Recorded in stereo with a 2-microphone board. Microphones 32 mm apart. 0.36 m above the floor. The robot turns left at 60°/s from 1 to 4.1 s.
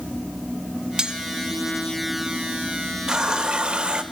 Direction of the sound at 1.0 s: 25° right (ahead or behind).